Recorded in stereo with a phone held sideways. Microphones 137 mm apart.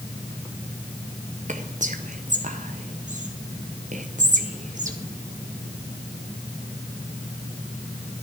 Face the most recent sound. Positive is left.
turn(degrees=-65)  # may be behind; listen again after turning